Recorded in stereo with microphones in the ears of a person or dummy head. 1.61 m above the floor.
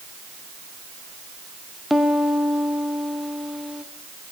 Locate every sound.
1.9 s a piano: centre (ahead or behind), 1.1 m